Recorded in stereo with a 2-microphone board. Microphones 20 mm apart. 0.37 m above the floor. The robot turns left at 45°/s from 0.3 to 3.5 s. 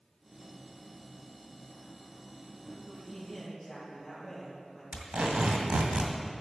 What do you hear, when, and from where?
2.9 s a man speaking: 5° right (ahead or behind), 4.5 m; by 4.8 s 25° left (ahead or behind), 4.5 m
4.9 s tape being pulled: 65° right (ahead or behind), 2.0 m